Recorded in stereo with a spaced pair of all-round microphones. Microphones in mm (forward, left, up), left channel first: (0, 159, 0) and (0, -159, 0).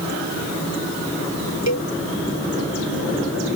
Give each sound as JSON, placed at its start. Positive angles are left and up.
{"t": 1.7, "sound": "a cowbell", "side_deg": 55}